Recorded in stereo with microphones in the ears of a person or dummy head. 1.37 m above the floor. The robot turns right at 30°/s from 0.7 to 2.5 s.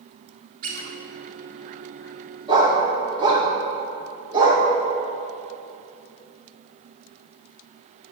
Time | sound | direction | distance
0.6 | a squeak | 45° right (ahead or behind) | 1.5 m
2.5 | a dog barking | 25° right (ahead or behind) | 1.5 m